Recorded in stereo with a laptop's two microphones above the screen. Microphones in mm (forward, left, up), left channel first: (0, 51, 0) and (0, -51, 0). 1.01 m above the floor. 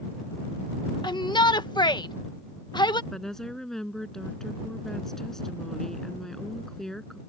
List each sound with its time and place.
1.0 s a shout: 45° left (ahead or behind)
3.1 s a woman speaking: 5° left (ahead or behind)